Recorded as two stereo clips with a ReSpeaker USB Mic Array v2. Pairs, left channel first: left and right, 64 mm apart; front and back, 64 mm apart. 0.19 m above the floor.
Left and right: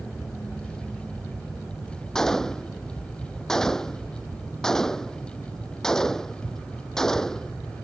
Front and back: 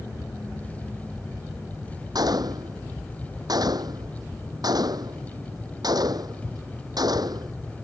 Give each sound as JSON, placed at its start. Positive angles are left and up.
{"t": 2.1, "sound": "a gunshot", "azimuth_deg": 175}